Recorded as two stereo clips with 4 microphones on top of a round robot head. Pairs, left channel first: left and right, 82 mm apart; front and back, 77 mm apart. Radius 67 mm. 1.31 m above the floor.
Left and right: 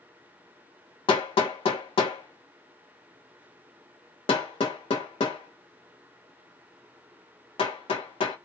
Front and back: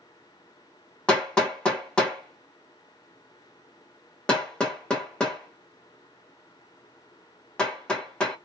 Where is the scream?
No scream in this recording.